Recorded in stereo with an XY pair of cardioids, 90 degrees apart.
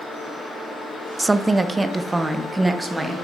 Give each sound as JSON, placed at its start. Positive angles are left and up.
{"t": 1.2, "sound": "a woman speaking", "azimuth_deg": -25, "distance_m": 0.6}